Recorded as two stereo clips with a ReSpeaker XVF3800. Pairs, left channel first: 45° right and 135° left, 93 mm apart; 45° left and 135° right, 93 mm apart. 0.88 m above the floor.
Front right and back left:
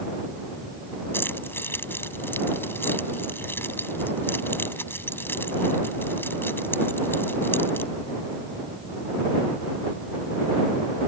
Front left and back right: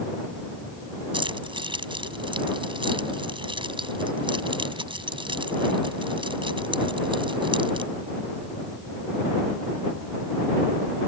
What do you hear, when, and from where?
1.1 s keys jangling: 110° right